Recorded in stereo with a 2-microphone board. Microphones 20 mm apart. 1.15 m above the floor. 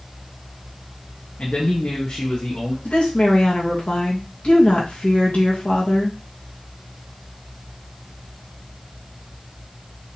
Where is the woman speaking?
70° left (ahead or behind), 1.6 m.